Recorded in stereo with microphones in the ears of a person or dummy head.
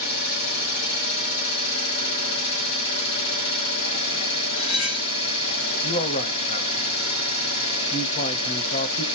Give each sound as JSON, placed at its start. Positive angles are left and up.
{"t": 0.0, "sound": "an engine running", "side_deg": 55, "distance_m": 3.0}
{"t": 4.5, "sound": "cutlery clinking", "side_deg": 35, "distance_m": 2.0}
{"t": 5.8, "sound": "a man speaking", "side_deg": 35, "distance_m": 0.6}